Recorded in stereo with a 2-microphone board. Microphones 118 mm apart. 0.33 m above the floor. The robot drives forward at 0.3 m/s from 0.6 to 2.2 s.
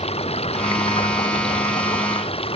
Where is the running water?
65° left (ahead or behind); by 2.6 s 60° left (ahead or behind).